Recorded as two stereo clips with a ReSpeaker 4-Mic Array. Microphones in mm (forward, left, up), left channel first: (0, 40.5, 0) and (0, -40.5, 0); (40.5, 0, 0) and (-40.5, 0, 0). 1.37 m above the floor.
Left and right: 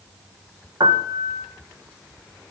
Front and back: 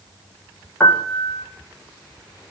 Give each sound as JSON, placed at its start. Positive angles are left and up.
{"t": 0.8, "sound": "a piano", "azimuth_deg": -60, "distance_m": 1.3}